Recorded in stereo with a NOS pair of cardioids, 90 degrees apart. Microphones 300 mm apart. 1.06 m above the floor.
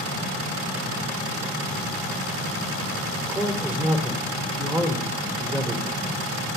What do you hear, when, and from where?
3.3 s a man speaking: 5° right, 2.5 m